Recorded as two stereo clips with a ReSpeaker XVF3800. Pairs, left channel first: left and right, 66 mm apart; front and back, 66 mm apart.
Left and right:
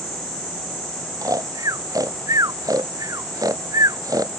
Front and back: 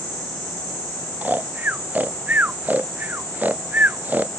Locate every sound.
1.2 s snoring: 115° right